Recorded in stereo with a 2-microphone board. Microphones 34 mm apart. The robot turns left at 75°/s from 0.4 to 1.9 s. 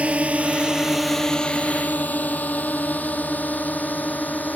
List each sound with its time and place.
0.0 s a drone: 45° right (ahead or behind); by 4.6 s 60° left (ahead or behind)